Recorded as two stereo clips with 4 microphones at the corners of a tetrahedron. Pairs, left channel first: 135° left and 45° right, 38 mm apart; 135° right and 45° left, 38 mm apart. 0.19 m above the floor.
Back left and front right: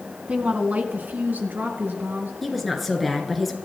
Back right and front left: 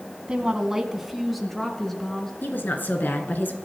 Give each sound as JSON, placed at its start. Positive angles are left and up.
{"t": 0.3, "sound": "a woman speaking", "azimuth_deg": -10, "distance_m": 1.9}
{"t": 2.4, "sound": "a woman speaking", "azimuth_deg": -135, "distance_m": 2.5}